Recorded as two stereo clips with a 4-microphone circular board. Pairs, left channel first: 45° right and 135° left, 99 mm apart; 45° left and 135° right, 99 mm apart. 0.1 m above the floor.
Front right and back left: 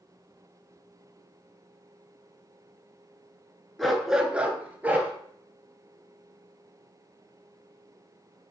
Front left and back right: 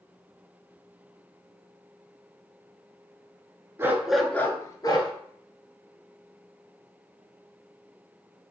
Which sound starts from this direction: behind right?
A dog barking, at 3.8 s.